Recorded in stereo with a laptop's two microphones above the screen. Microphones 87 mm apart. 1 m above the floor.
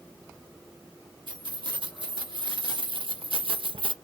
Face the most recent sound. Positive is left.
turn(degrees=-70)  # may be behind; listen again after turning